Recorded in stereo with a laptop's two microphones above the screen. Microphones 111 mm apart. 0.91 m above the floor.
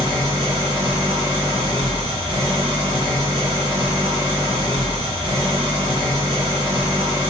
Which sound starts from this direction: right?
An engine running, at 0.0 s.